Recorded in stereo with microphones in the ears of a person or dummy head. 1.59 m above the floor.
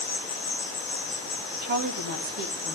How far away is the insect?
About 2.5 m.